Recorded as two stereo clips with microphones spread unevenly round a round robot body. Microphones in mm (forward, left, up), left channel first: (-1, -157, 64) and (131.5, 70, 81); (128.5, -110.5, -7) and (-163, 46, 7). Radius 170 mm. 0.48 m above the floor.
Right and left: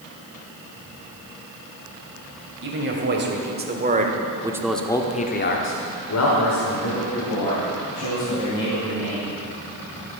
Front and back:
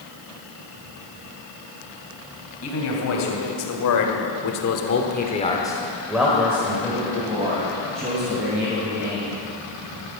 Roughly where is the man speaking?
Ahead.